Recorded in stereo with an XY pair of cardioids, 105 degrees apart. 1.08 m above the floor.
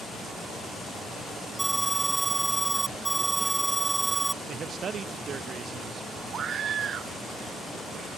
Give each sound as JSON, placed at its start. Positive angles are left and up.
{"t": 1.6, "sound": "an alarm", "azimuth_deg": -10}
{"t": 4.5, "sound": "a man speaking", "azimuth_deg": -50}
{"t": 6.3, "sound": "a scream", "azimuth_deg": -55}